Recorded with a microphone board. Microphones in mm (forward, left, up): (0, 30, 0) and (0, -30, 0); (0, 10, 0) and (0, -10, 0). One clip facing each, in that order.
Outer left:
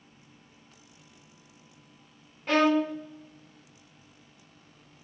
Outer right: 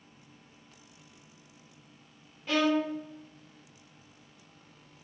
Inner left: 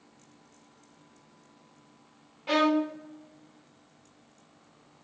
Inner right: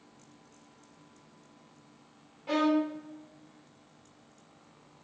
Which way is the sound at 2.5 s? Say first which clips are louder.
Outer left 4 dB, inner left 2 dB; 55° left (ahead or behind).